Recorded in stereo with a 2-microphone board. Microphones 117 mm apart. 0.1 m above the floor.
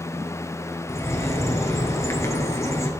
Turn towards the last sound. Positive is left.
turn(degrees=25)  # may be behind; listen again after turning